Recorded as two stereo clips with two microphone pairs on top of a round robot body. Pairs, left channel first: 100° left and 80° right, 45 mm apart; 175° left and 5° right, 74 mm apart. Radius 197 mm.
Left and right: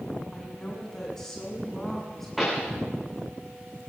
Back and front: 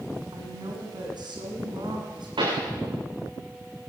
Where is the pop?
10° left, 10 m.